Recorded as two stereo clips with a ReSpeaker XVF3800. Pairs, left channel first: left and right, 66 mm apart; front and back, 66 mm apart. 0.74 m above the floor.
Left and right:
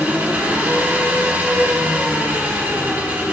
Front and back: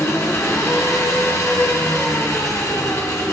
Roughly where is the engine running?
Ahead right.